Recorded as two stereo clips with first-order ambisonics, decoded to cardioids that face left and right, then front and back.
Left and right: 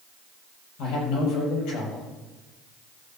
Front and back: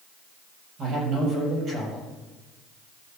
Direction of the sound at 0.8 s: 120° left.